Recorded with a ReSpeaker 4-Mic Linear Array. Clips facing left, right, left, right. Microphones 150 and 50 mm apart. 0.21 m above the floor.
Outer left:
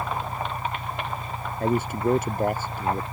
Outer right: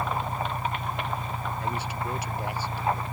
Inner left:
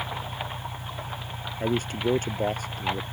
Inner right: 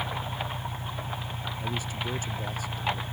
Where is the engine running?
20° right (ahead or behind).